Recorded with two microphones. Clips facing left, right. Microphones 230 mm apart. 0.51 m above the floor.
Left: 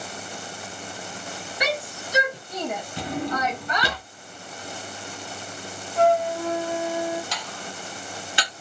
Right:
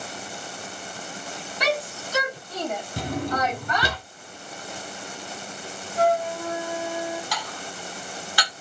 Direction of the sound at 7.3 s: 20° left (ahead or behind).